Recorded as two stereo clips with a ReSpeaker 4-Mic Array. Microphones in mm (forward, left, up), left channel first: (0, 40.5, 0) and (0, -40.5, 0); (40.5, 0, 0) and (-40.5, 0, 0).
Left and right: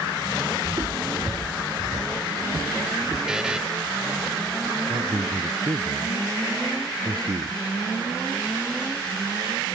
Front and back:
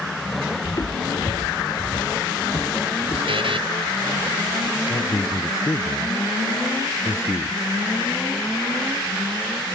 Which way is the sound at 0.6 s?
40° right.